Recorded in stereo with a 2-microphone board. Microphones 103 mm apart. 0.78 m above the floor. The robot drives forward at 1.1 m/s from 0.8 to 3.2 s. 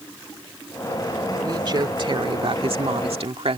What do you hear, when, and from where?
1.4 s a woman speaking: 40° right (ahead or behind); by 3.6 s 70° right (ahead or behind)